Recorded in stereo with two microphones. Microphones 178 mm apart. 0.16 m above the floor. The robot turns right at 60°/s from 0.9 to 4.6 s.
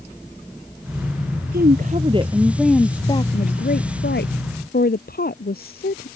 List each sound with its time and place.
1.5 s a woman speaking: 70° right; by 6.1 s 115° left